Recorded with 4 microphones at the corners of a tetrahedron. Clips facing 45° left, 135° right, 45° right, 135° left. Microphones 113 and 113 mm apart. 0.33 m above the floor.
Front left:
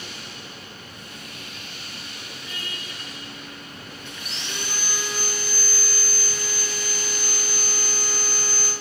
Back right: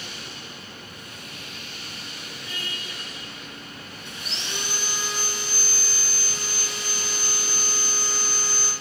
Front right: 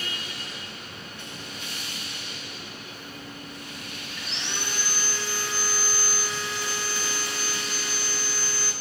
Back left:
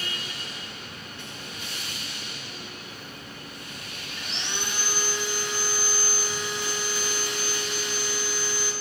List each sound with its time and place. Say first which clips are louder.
4.2 s sawing: back right 1 dB, back left 1 dB; 170° right, 1.6 m